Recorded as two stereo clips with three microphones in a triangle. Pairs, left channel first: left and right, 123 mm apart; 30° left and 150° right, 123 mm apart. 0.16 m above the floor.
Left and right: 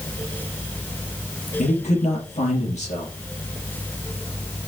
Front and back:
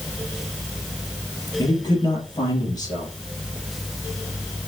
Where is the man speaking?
85° left, 4 m.